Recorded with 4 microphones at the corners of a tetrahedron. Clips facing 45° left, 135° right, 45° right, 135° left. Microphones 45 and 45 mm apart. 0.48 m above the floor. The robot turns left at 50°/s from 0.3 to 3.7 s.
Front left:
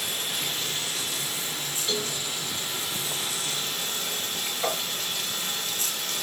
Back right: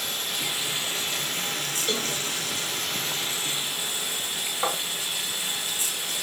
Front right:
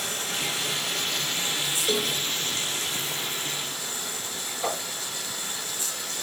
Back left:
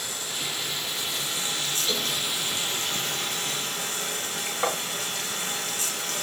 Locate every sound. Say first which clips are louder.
0.0 s running water: back right 1 dB, front right 3 dB; 45° right, 4 m; by 6.2 s 145° left, 4 m
1.9 s a cowbell: back right 1 dB, front right 3 dB; 85° right, 4 m; by 2.2 s 100° right, 4 m
4.6 s tapping: back right 1 dB, back left 2 dB; 175° left, 4.5 m